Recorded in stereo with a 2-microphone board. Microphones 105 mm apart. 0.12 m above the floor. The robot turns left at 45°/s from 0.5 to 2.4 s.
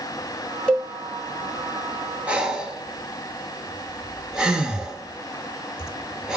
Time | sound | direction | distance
0.7 | a cowbell | 10° left (ahead or behind) | 1.0 m
2.3 | breathing | 10° right (ahead or behind) | 0.7 m